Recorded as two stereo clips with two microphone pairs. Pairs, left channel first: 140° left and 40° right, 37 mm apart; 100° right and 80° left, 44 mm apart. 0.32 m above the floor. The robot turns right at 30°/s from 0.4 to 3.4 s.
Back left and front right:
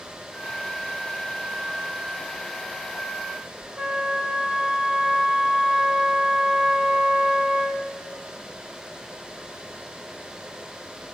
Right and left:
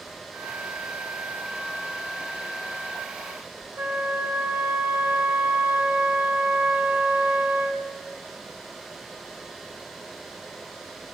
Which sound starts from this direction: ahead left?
A flute, at 3.8 s.